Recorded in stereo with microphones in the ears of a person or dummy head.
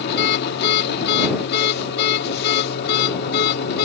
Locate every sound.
0.0 s a machine running: 55° left (ahead or behind)